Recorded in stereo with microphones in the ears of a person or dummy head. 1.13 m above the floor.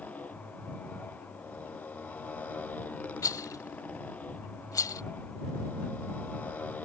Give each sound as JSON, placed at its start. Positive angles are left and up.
{"t": 0.0, "sound": "a motorcycle", "side_deg": 5}
{"t": 3.2, "sound": "a rattle", "side_deg": 25}